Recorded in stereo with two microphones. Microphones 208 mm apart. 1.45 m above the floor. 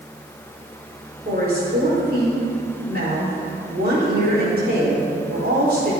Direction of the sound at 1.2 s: 50° right (ahead or behind).